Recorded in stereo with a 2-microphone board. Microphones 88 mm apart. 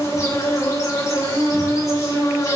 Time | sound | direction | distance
0.0 | an insect | 35° left (ahead or behind) | 1.0 m